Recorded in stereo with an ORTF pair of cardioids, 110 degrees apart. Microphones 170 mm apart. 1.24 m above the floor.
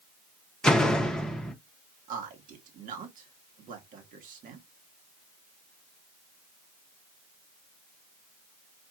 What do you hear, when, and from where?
0.6 s a door slam: 5° left, 1.0 m
2.1 s a man speaking: 60° right, 2.0 m